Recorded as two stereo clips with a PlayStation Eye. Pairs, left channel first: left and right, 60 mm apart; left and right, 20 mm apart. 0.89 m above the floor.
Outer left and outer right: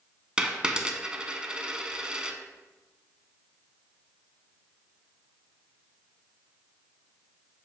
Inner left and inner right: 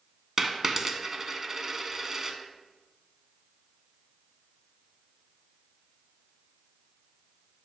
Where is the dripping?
I don't hear dripping.